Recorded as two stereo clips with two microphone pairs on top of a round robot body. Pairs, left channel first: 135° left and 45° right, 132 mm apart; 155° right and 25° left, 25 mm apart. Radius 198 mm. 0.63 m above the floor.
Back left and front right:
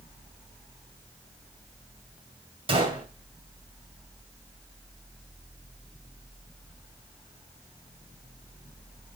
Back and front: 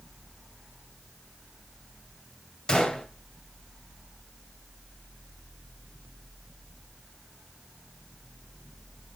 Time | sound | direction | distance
2.7 | a gunshot | 95° right | 2 m